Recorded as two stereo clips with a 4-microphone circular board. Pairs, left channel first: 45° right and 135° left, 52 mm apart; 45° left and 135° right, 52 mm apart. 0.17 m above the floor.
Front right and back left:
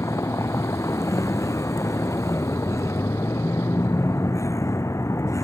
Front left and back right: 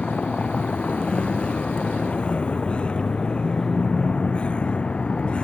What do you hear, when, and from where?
0.0 s a vehicle: 25° right